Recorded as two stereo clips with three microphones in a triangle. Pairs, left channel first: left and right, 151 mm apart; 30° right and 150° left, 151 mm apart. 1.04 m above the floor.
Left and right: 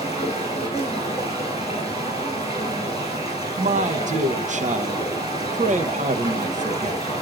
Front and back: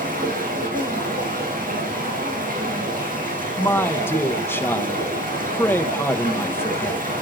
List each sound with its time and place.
0.0 s running water: 140° left, 4.5 m
3.6 s a man speaking: 105° right, 1.1 m